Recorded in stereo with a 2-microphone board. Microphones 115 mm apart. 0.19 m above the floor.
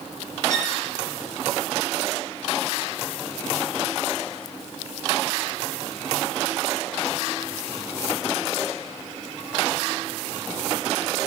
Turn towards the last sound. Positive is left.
turn(degrees=-70)  # may be behind; listen again after turning